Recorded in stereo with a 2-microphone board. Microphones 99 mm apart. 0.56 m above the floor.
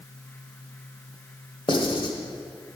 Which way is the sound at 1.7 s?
60° left (ahead or behind).